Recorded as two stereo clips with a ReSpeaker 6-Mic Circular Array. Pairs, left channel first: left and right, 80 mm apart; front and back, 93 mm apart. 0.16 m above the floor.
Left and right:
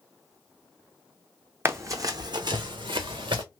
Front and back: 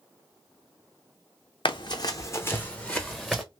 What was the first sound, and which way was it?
Running footsteps, 30° right.